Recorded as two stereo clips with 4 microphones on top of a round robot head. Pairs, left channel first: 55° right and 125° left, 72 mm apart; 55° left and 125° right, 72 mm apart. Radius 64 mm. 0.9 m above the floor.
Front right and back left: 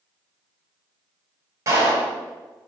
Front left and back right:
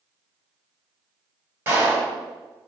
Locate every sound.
1.7 s a clap: 175° left, 5 m